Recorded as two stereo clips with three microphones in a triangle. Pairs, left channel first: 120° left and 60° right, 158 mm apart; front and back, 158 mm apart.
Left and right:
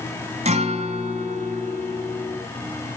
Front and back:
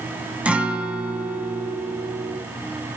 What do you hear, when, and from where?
0.5 s a guitar: 100° right, 2 m